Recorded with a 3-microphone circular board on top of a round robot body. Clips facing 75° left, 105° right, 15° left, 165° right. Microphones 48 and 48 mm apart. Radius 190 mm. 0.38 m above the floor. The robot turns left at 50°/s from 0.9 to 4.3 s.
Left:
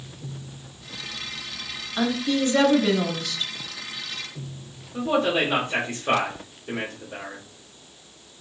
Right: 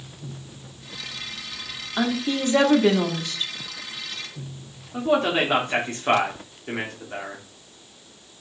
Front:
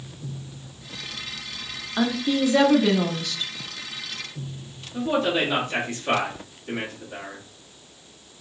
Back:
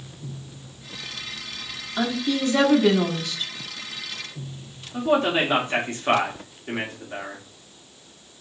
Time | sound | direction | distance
2.0 | a woman speaking | 40° right | 1.1 m
4.9 | a man speaking | 120° right | 1.4 m